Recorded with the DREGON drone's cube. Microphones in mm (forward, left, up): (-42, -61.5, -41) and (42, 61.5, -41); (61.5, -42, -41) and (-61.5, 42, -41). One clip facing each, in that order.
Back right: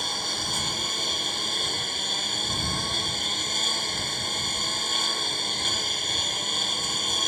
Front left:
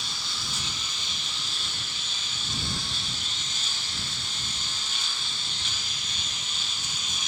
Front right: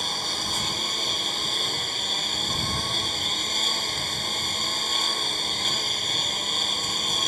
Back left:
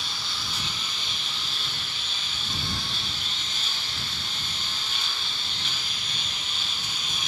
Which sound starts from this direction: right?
A lawn mower, at 0.0 s.